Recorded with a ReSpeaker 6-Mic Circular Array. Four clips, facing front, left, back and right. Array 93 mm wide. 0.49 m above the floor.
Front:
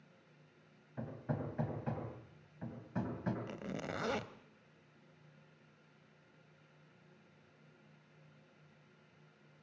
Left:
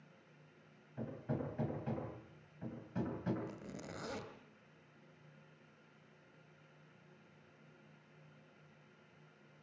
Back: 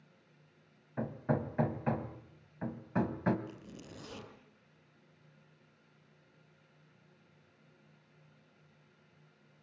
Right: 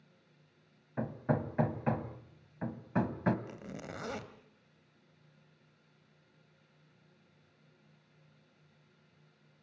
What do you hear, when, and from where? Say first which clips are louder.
1.0 s hammering: right 8 dB, back 7 dB; 120° right, 2.5 m
3.5 s a zipper: right 4 dB, front 7 dB; 20° right, 2 m